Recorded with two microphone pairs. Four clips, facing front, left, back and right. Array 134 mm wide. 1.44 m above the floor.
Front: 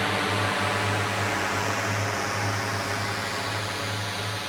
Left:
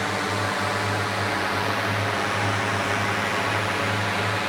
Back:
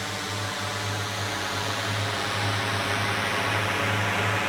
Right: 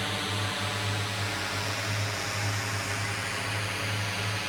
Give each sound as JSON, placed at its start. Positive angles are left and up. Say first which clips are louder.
{"t": 0.0, "sound": "a drone", "louder": "left 8 dB, front 7 dB", "azimuth_deg": 45}